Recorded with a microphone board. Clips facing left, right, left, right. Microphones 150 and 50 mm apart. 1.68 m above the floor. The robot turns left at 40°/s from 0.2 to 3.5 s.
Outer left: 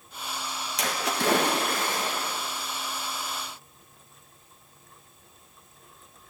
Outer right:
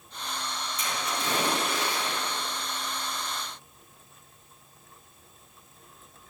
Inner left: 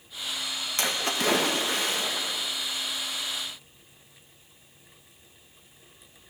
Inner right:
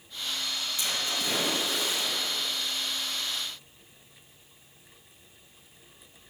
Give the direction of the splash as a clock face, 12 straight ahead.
9 o'clock.